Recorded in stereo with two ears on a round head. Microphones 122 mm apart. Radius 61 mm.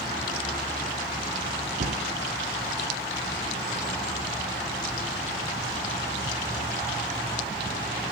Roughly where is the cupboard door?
Right.